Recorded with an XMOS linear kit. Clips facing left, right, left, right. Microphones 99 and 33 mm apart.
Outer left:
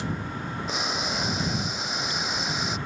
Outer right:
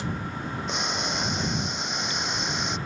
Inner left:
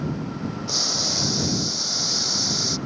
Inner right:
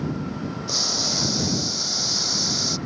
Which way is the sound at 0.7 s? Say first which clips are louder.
Even, inner right 1 dB; centre (ahead or behind).